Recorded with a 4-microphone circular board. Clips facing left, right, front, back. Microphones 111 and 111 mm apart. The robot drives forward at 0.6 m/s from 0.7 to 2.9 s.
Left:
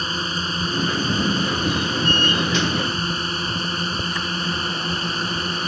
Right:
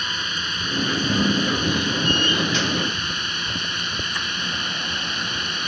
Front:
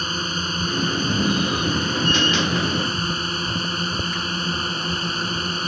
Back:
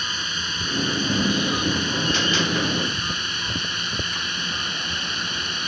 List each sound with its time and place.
0.0 s a drone: 40° left; by 5.7 s 45° left